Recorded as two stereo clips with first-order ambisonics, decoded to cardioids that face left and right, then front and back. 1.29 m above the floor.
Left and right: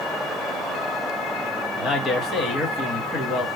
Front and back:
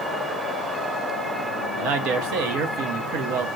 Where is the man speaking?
155° left, 1.1 m.